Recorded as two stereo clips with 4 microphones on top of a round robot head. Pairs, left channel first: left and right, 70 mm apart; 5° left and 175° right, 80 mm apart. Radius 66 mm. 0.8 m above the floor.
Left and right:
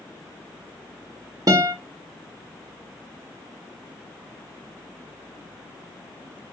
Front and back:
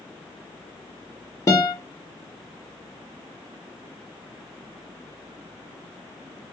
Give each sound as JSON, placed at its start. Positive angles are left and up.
{"t": 1.5, "sound": "a guitar", "azimuth_deg": -50, "distance_m": 0.9}